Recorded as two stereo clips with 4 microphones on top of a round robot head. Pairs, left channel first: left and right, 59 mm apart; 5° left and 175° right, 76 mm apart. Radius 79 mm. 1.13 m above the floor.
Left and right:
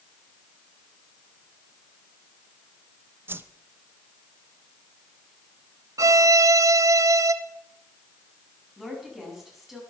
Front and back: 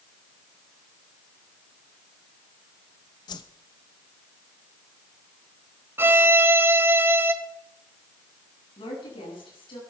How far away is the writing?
No writing in this recording.